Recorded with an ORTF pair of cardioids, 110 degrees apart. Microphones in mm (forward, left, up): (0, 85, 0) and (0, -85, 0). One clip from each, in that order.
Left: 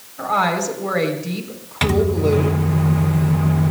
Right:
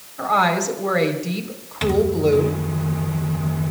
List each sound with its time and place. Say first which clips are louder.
0.2 s a woman speaking: right 1 dB; 10° right, 4 m
1.8 s a microwave: even; 30° left, 0.9 m